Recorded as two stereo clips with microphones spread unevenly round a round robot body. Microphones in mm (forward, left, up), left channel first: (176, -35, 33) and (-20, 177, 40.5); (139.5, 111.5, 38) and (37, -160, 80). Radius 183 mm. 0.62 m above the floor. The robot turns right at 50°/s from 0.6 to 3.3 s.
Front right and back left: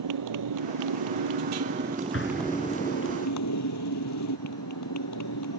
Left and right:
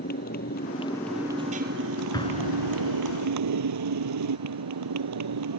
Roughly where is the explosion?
Ahead.